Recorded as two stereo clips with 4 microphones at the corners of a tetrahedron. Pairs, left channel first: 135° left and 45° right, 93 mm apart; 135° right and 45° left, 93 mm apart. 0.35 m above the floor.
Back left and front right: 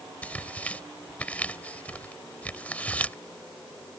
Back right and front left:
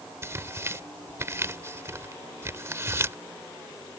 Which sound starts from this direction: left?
Tearing paper, at 0.2 s.